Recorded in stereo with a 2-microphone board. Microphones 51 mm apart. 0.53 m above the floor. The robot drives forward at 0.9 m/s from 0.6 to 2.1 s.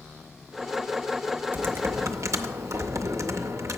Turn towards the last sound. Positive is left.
turn(degrees=-80)